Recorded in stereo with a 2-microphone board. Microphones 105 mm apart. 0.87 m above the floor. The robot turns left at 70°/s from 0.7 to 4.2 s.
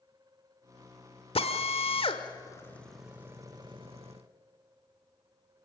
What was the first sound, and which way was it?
A drill, 65° left (ahead or behind).